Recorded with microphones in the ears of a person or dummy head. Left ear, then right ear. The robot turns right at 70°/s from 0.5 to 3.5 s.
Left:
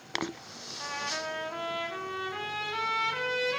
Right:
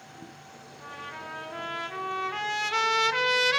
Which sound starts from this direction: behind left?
A trumpet, at 0.8 s.